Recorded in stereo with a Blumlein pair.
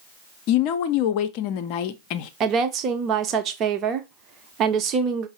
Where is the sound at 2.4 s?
30° right, 0.8 m.